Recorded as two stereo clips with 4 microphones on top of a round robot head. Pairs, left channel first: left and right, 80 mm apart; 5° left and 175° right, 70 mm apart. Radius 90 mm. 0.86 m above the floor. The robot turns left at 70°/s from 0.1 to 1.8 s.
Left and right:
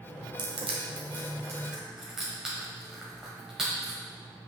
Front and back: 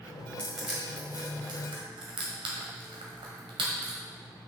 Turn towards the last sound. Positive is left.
turn(degrees=-175)